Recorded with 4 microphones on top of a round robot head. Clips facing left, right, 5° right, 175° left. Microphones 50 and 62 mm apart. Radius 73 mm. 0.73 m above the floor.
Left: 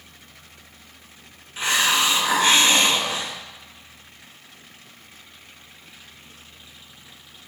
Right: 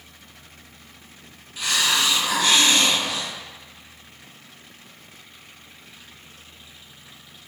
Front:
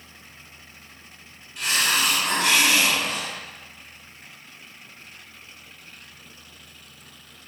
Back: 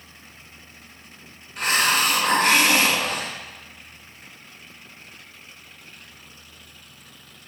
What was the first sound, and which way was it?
A hiss, 145° left.